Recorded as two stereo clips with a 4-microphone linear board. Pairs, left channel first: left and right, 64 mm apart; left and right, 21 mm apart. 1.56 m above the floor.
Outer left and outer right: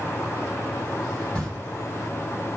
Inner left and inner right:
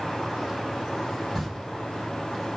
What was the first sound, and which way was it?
A camera shutter, 20° left (ahead or behind).